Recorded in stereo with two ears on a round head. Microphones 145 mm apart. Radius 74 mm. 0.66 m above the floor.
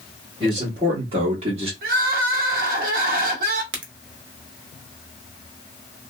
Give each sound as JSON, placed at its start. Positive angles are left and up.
{"t": 0.4, "sound": "a man speaking", "side_deg": -30, "distance_m": 1.5}
{"t": 1.8, "sound": "crying", "side_deg": -55, "distance_m": 0.7}
{"t": 3.7, "sound": "a crack", "side_deg": -75, "distance_m": 0.7}